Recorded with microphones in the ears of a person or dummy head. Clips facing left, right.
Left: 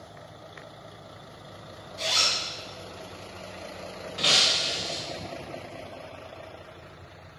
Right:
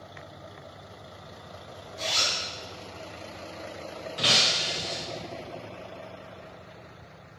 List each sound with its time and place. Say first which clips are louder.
2.0 s a zipper: left 1 dB; 10° left (ahead or behind), 1.6 m
4.2 s breaking glass: even; 10° right (ahead or behind), 0.7 m